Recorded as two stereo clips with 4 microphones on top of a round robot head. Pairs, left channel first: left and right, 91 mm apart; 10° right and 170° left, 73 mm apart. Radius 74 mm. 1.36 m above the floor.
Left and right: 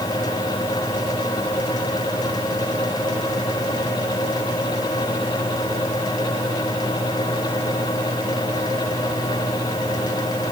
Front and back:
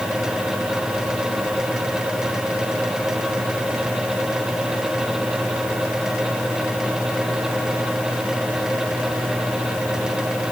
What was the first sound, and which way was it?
Only background noise.